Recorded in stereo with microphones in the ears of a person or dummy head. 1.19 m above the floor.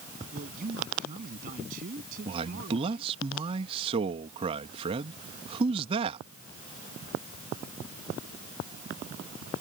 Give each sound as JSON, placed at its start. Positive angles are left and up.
{"t": 0.3, "sound": "a man speaking", "side_deg": -45}
{"t": 2.2, "sound": "a man speaking", "side_deg": -30}